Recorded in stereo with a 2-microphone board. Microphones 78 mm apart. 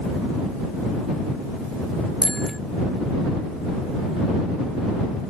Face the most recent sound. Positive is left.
turn(degrees=0)  # may be behind; listen again after turning